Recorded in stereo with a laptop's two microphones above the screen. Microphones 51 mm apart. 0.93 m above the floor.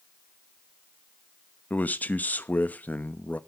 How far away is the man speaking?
About 0.9 m.